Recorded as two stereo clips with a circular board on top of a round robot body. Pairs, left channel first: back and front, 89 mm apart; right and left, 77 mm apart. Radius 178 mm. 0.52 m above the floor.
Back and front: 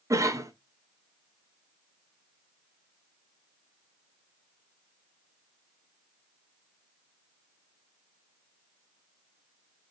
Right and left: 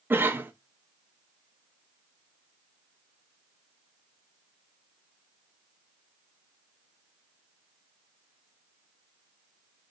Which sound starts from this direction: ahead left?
A cough, at 0.1 s.